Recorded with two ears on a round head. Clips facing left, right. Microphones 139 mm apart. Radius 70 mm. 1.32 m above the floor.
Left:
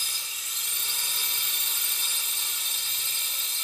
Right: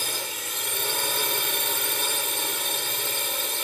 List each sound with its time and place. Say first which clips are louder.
0.0 s a drone: right 13 dB; 45° right (ahead or behind)